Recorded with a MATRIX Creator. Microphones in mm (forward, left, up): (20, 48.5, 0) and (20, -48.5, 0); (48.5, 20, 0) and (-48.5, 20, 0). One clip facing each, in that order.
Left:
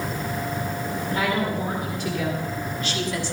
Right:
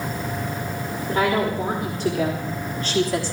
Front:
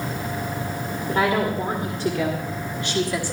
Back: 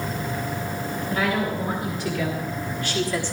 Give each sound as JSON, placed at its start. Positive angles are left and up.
{"t": 1.1, "sound": "a woman speaking", "azimuth_deg": -35, "distance_m": 1.9}